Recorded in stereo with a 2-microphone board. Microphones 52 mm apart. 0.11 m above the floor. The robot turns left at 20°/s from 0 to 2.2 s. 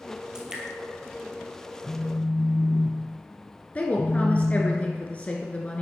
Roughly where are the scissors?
No scissors in this recording.